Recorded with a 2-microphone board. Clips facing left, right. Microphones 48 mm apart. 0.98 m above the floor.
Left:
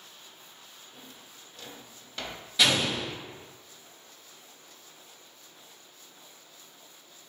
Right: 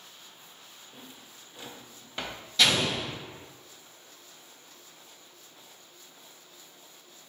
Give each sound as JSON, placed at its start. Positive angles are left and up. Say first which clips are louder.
{"t": 0.9, "sound": "a drawer", "louder": "right 2 dB", "side_deg": -20, "distance_m": 0.5}
{"t": 2.6, "sound": "an explosion", "louder": "even", "side_deg": 10, "distance_m": 1.7}